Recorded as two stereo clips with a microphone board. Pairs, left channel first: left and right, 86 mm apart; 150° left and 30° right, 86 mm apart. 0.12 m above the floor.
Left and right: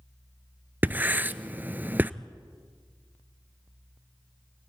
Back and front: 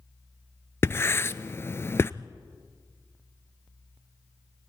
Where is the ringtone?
No ringtone in this recording.